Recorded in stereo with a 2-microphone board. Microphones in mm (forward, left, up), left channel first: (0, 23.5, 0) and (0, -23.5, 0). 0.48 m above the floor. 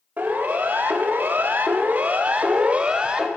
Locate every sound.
0.2 s a siren: 35° right (ahead or behind), 2.5 m; by 3.3 s 15° right (ahead or behind), 2 m